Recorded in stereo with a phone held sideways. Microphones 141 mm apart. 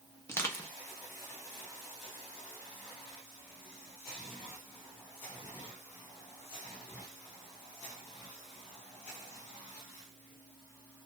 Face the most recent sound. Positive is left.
turn(degrees=20)  # may be behind; listen again after turning